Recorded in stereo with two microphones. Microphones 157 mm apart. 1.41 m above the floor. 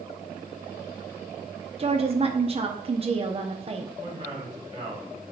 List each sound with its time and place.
1.8 s a woman speaking: 35° right (ahead or behind), 0.7 m
4.0 s a man speaking: 40° right (ahead or behind), 2.5 m